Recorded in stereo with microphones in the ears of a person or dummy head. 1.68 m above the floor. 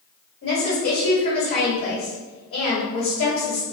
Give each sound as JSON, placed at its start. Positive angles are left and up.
{"t": 0.4, "sound": "a woman speaking", "side_deg": 65, "distance_m": 1.5}